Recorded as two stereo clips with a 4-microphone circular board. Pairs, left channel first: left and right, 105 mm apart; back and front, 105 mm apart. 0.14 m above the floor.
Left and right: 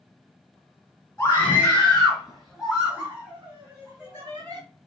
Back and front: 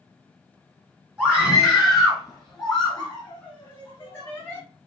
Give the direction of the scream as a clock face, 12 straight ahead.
10 o'clock.